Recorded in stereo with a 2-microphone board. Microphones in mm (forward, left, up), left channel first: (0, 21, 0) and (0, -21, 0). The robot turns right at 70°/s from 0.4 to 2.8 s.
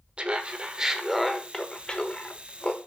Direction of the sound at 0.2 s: 25° right (ahead or behind).